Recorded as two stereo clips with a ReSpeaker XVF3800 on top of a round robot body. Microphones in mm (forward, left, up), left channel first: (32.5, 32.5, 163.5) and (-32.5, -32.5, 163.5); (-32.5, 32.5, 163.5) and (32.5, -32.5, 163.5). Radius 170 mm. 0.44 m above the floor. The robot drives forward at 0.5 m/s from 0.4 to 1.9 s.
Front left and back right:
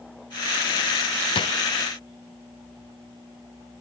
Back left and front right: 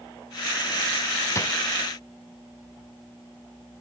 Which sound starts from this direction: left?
A drawer, at 1.4 s.